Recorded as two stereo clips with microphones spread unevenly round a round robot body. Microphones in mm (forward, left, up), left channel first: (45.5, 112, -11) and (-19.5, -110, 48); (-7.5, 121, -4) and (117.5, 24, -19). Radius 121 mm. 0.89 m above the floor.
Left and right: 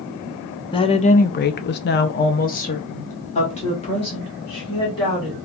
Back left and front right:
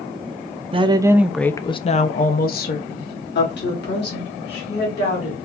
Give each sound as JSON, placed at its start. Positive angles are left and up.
{"t": 0.7, "sound": "a woman speaking", "azimuth_deg": 15, "distance_m": 0.6}